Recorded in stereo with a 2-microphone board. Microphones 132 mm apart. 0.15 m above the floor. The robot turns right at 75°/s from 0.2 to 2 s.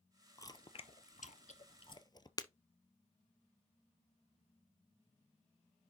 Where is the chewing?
25° left (ahead or behind), 0.7 m; by 2.3 s 35° left (ahead or behind), 0.7 m.